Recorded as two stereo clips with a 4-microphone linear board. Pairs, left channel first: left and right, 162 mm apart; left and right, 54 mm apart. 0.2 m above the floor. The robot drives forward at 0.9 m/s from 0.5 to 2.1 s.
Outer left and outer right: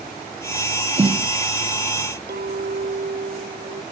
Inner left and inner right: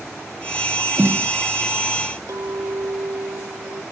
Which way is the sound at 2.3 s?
80° right.